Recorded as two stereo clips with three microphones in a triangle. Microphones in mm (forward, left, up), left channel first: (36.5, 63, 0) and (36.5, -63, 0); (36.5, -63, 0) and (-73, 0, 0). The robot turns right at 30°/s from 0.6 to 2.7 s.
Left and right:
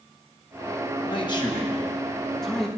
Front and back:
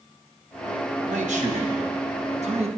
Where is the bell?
No bell in this recording.